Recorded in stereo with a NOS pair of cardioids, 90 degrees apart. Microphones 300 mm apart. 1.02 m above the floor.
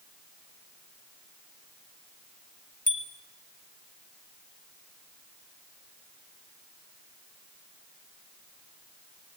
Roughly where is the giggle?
No giggle in this recording.